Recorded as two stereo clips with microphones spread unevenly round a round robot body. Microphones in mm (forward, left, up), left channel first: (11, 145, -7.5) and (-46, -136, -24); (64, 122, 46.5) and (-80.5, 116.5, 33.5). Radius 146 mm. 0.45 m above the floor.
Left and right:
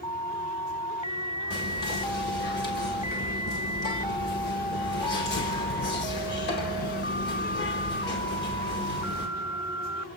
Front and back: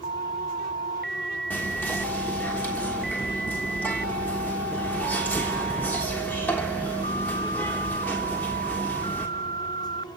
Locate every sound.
1.5 s whispering: 80° left, 1.4 m